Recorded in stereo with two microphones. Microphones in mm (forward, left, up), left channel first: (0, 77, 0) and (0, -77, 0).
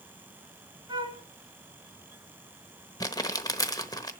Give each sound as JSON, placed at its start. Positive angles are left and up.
{"t": 0.9, "sound": "a flute", "side_deg": -25, "distance_m": 1.8}
{"t": 3.0, "sound": "crumpling", "side_deg": 25, "distance_m": 1.0}